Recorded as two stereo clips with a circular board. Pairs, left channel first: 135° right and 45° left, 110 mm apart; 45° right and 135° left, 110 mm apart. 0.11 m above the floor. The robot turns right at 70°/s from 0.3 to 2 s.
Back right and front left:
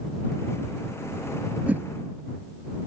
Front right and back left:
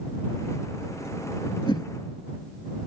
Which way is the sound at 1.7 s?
30° right.